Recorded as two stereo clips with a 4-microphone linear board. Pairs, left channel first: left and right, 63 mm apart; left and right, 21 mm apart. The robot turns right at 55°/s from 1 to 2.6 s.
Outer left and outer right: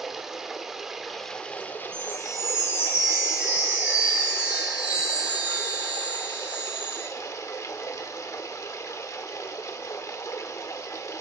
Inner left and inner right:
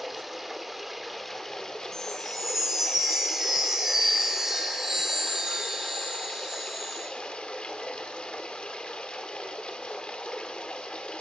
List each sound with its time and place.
0.0 s running water: 5° right, 1.2 m; by 11.2 s 80° left, 1.2 m
1.9 s a chime: 165° left, 3.5 m; by 7.1 s 160° right, 3.5 m